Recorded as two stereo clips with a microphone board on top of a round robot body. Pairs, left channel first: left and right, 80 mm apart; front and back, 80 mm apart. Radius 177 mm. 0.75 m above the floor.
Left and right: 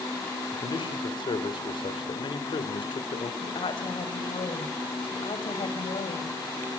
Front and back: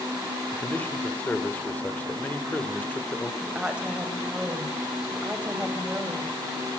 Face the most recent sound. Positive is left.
turn(degrees=105)